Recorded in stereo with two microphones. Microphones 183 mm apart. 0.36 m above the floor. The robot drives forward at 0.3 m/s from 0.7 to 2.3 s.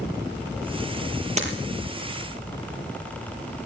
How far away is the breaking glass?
About 4.5 m.